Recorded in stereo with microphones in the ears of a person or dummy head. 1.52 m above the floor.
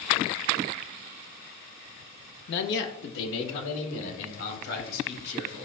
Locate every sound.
2.5 s a man speaking: 70° left (ahead or behind), 1.2 m; by 5.7 s 75° left (ahead or behind), 6 m